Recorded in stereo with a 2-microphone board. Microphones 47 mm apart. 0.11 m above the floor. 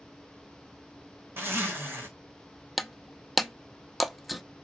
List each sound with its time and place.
1.4 s a zipper: 55° right (ahead or behind), 3 m
2.8 s breaking glass: centre (ahead or behind), 0.6 m